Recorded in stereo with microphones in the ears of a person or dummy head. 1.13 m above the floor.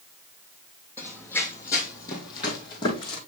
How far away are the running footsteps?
About 2 m.